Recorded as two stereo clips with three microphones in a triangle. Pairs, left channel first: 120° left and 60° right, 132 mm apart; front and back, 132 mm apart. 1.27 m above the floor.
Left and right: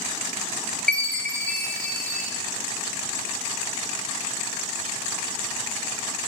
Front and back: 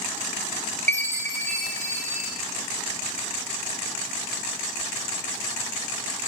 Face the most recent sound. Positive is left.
turn(degrees=-160)